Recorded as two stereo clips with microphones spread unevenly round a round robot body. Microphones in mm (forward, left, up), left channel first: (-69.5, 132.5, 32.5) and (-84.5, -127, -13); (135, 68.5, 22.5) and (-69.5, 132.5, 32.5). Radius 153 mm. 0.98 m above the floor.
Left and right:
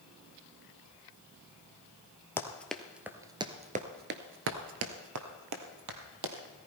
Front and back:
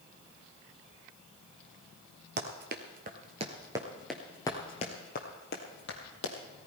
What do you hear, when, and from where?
2.4 s running footsteps: 160° left, 1.4 m; by 6.3 s 60° right, 2 m